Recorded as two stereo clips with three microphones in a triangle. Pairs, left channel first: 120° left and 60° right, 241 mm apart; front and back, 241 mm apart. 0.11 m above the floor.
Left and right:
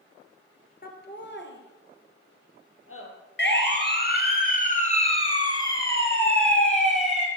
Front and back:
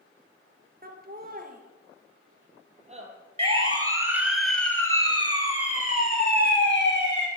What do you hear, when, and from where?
0.8 s laughter: 150° left, 2.5 m; by 3.1 s 120° left, 3.5 m
3.4 s a siren: 125° left, 3 m; by 7.3 s 30° left, 4.5 m